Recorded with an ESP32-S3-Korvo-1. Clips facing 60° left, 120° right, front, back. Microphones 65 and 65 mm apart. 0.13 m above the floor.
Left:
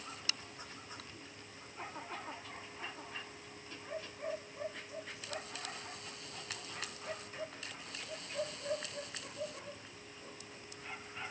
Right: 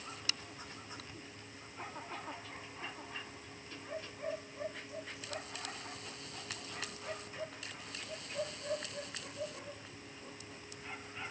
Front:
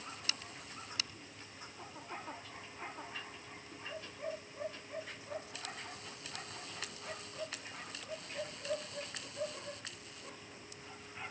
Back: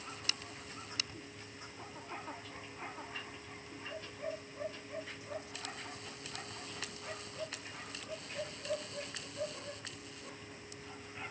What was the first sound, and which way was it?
Only background noise.